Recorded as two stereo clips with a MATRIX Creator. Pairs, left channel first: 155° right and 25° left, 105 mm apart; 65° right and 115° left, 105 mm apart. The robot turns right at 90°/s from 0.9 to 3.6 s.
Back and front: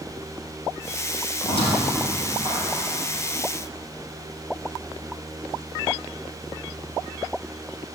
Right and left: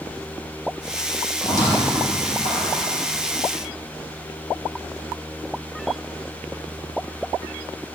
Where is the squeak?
135° right, 4 m; by 2.9 s 5° right, 4 m.